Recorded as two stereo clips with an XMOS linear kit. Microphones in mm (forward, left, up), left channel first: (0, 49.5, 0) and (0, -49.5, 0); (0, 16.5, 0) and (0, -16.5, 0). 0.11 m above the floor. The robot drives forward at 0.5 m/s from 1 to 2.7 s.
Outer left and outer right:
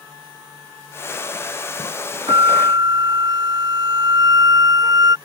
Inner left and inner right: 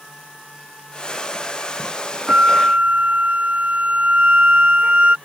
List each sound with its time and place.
2.3 s a flute: 45° right (ahead or behind); by 5.2 s 40° right (ahead or behind)